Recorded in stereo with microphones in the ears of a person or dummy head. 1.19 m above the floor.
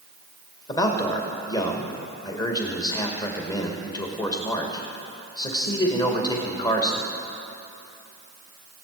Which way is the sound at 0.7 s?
25° left (ahead or behind).